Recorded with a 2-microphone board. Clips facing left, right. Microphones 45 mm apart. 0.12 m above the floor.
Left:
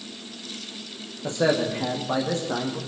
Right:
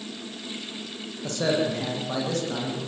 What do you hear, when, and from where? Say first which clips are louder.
1.2 s a man speaking: left 2 dB; 20° left (ahead or behind), 8.5 m; by 2.8 s 25° left (ahead or behind), 8.5 m